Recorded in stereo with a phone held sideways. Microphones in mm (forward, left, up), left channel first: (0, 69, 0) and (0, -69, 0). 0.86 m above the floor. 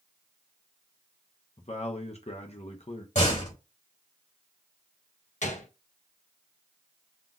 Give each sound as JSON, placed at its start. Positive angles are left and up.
{"t": 1.6, "sound": "a man speaking", "side_deg": 55, "distance_m": 0.7}
{"t": 3.1, "sound": "a door slam", "side_deg": 70, "distance_m": 2.5}
{"t": 5.4, "sound": "a gunshot", "side_deg": 65, "distance_m": 0.8}